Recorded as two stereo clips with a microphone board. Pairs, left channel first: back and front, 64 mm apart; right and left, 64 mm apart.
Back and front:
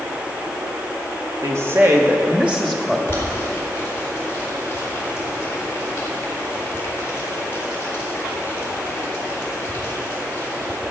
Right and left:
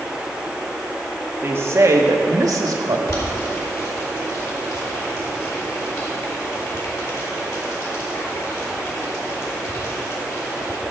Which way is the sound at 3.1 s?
125° right.